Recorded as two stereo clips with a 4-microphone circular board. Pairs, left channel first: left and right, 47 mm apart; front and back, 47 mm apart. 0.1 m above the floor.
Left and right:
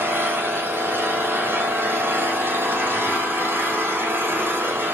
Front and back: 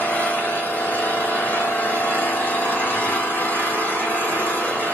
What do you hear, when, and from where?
0.0 s an engine running: 55° right, 3 m